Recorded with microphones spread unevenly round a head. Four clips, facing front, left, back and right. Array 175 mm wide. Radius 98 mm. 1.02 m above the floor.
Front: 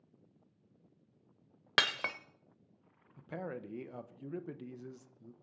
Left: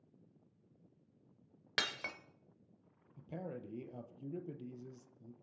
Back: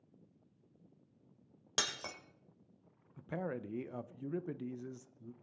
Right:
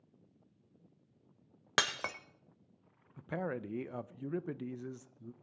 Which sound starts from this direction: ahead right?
Breaking glass, at 1.8 s.